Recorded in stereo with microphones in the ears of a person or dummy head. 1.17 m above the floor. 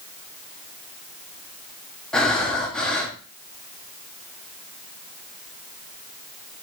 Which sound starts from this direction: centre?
Breathing, at 2.1 s.